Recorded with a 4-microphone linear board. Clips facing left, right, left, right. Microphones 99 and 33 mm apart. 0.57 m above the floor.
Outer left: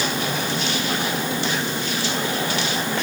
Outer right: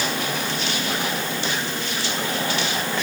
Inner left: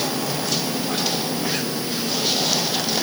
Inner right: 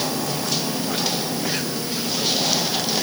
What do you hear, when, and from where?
Only background noise.